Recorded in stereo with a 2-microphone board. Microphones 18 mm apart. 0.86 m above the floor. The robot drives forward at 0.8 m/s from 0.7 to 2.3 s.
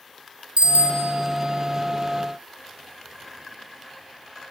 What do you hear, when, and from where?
0.6 s a bicycle bell: 65° right (ahead or behind), 2 m; by 1.1 s 70° right (ahead or behind), 2 m